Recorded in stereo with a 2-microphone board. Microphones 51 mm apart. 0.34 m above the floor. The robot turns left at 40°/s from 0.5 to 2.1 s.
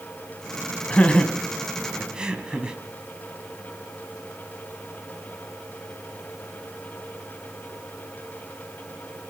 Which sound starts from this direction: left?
Laughter, at 0.9 s.